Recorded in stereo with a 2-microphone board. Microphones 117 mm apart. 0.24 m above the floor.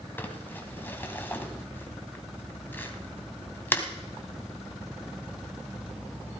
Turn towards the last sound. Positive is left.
turn(degrees=15)  # may be behind; listen again after turning